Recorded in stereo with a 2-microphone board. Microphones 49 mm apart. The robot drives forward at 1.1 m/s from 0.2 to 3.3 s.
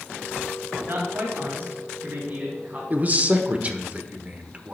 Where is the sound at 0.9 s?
55° right (ahead or behind), 2.5 m; by 2.8 s 30° right (ahead or behind), 4 m.